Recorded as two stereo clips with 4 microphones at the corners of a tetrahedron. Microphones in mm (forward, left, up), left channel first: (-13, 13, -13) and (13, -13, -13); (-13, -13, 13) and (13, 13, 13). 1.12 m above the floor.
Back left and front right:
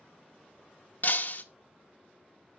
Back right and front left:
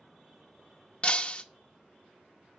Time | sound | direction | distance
1.0 | breaking glass | 170° left | 0.7 m